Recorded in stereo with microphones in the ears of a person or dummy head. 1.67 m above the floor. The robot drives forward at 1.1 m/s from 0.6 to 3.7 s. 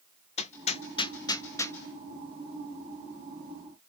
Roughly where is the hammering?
Left.